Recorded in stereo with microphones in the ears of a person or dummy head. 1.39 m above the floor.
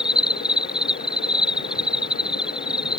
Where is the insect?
Centre (ahead or behind).